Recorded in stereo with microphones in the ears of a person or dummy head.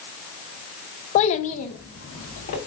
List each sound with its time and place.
1.1 s a child speaking: 30° left (ahead or behind), 0.5 m; by 2.6 s 40° left (ahead or behind), 2 m